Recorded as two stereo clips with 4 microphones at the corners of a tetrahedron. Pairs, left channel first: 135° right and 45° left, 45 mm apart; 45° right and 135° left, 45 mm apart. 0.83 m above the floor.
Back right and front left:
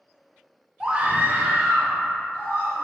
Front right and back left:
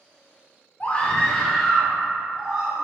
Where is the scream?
20° right, 0.6 m; by 2.9 s 50° left, 1.8 m.